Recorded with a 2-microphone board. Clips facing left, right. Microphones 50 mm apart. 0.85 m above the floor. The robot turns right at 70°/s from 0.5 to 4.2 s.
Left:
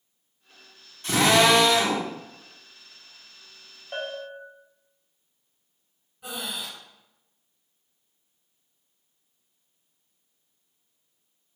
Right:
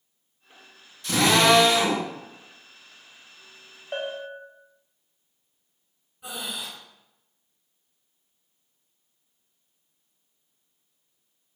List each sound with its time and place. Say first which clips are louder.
1.0 s a drill: even; 140° left, 2.0 m; by 2.0 s 150° right, 2.0 m
3.9 s a bell: right 2 dB; 15° right (ahead or behind), 0.8 m; by 4.4 s 10° right (ahead or behind), 0.8 m
6.2 s breathing: even; 5° right (ahead or behind), 1.7 m